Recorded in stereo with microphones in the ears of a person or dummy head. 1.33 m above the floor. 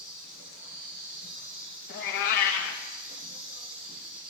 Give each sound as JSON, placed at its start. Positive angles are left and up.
{"t": 0.0, "sound": "an insect", "side_deg": -40, "distance_m": 2.0}
{"t": 1.9, "sound": "a cat meowing", "side_deg": 45, "distance_m": 0.7}